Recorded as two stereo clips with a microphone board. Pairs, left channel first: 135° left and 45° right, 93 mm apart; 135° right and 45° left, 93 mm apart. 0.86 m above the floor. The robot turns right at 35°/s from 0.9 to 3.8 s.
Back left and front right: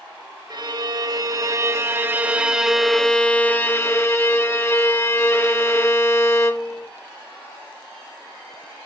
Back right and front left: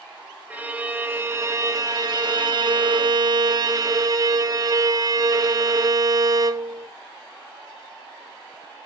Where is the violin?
25° right, 0.6 m; by 6.9 s 75° left, 0.6 m.